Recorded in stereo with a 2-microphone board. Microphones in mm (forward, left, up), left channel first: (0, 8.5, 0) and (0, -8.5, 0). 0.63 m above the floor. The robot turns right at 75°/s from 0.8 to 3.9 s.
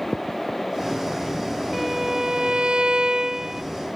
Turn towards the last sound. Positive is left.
turn(degrees=-5)